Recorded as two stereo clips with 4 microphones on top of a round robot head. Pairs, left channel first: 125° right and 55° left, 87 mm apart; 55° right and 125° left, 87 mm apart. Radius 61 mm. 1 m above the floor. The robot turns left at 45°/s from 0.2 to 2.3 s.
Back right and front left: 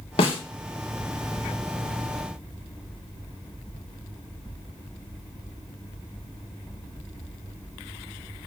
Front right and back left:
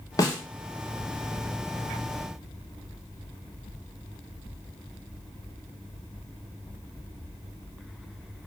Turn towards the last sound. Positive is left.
turn(degrees=160)